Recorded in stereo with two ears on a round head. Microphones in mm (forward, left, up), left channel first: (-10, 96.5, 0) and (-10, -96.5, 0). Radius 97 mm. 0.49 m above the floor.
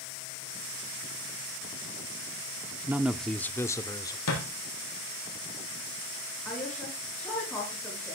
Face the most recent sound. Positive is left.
turn(degrees=5)  # may be behind; listen again after turning